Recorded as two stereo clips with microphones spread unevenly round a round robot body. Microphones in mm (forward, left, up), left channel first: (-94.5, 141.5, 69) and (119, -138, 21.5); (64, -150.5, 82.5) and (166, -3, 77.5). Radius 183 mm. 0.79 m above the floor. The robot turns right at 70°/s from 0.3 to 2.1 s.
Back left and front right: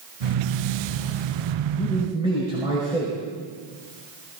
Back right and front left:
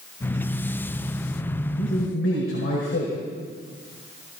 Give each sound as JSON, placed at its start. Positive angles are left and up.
{"t": 1.8, "sound": "a man speaking", "azimuth_deg": -155, "distance_m": 5.0}